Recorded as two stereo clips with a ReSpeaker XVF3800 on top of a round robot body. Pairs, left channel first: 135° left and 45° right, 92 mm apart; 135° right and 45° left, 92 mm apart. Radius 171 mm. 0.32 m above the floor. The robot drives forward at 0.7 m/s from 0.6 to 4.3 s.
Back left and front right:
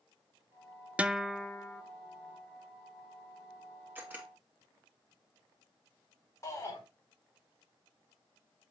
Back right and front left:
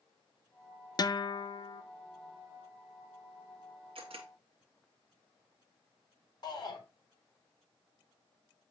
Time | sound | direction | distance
1.0 | a guitar | 115° right | 0.6 m
4.0 | a camera shutter | 25° left | 2.0 m
6.4 | a shout | 175° right | 4.5 m